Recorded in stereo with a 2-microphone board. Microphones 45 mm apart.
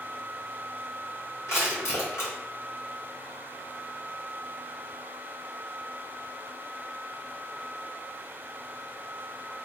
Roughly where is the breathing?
No breathing in this recording.